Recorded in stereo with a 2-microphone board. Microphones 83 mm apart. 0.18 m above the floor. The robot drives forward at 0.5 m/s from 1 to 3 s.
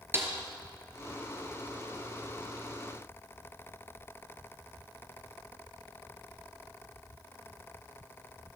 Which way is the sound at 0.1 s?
30° right (ahead or behind).